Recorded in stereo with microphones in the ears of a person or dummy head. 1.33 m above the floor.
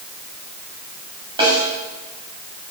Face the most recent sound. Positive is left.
turn(degrees=-25)  # may be behind; listen again after turning